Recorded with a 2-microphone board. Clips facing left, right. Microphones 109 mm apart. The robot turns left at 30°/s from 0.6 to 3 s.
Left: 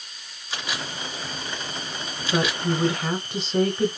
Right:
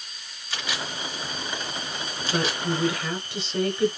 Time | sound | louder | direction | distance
0.5 | a camera shutter | left 1 dB | 15° left (ahead or behind) | 1.7 m
2.3 | a woman speaking | left 3 dB | 20° left (ahead or behind) | 1.1 m